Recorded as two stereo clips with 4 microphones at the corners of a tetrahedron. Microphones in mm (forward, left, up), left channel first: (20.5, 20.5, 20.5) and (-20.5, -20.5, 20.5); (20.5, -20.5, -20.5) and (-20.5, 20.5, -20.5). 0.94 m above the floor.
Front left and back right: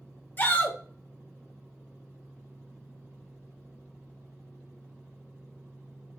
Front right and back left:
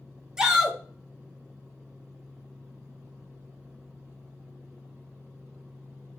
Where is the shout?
65° left, 1.0 m.